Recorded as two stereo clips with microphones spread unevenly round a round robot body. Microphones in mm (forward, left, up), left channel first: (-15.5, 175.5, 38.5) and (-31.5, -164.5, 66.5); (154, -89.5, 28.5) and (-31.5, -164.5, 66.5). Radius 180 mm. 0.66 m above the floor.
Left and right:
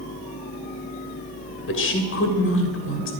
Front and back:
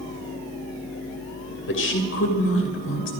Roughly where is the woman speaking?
Ahead left.